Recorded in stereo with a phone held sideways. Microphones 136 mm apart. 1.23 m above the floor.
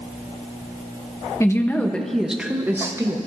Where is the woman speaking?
20° left (ahead or behind), 1.1 m; by 3.2 s 25° right (ahead or behind), 1.3 m.